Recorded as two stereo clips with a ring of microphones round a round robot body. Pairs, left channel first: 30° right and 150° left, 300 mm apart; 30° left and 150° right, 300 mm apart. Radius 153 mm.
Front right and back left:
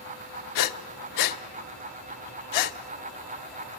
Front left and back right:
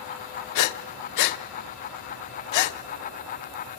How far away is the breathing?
About 0.7 m.